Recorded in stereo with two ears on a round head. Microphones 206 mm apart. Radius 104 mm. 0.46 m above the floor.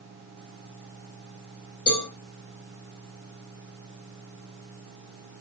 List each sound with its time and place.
1.9 s a cowbell: 40° left (ahead or behind), 5 m